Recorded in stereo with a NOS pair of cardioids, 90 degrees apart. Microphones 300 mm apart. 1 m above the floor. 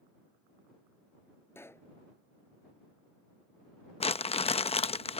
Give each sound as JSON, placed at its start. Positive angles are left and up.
{"t": 1.6, "sound": "a pop", "azimuth_deg": 10}
{"t": 4.0, "sound": "crumpling", "azimuth_deg": 20}